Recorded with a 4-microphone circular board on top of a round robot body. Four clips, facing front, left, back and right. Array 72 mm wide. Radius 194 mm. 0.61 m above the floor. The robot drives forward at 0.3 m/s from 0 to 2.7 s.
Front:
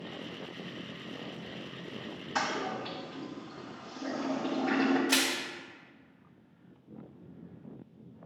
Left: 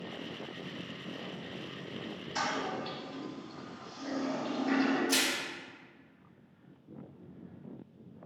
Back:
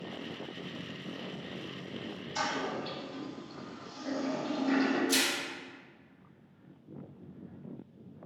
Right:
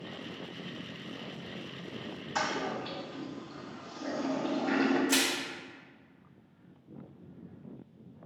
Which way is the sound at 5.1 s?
15° right.